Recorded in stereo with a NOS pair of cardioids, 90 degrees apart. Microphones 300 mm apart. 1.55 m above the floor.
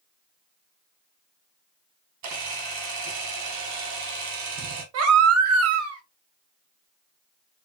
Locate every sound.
2.2 s a camera shutter: 70° right, 1.6 m
4.9 s a baby crying: 60° right, 1.4 m